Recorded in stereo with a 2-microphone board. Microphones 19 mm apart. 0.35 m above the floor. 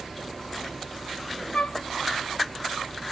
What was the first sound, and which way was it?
A flute, 75° left (ahead or behind).